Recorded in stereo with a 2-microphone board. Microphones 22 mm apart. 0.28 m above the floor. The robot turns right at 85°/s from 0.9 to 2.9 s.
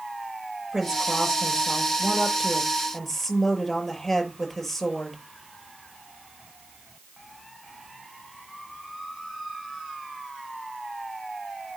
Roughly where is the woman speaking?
Behind.